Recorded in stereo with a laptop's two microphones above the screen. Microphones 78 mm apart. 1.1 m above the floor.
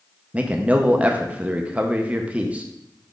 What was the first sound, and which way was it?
A man speaking, 20° right (ahead or behind).